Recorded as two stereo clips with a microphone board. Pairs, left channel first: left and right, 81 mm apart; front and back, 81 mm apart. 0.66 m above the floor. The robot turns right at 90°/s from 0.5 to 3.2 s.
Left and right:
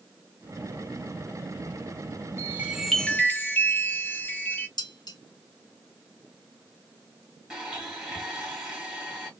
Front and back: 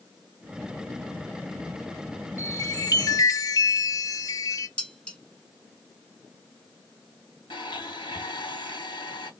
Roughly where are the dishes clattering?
Left.